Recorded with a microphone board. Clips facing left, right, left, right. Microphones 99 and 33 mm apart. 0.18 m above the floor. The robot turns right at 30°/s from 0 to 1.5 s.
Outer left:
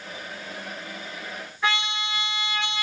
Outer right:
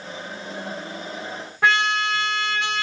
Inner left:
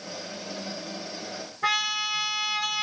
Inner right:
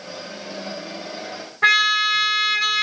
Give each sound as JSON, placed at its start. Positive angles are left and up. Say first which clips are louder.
{"t": 1.6, "sound": "a trumpet", "louder": "outer right 7 dB, inner right 10 dB", "side_deg": -75, "distance_m": 0.7}